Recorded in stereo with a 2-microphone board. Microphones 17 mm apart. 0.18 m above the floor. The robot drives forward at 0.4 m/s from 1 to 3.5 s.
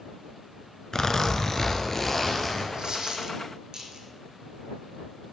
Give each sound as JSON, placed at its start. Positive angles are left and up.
{"t": 0.9, "sound": "a zipper", "side_deg": 40, "distance_m": 0.7}
{"t": 2.7, "sound": "a dropped coin", "side_deg": -50, "distance_m": 1.2}